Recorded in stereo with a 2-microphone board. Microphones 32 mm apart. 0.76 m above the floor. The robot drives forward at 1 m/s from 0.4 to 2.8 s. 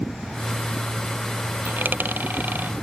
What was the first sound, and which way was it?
A dropped coin, 90° right.